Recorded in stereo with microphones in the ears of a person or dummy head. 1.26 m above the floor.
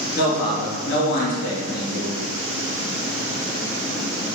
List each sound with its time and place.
0.1 s a man speaking: 65° left (ahead or behind), 2.5 m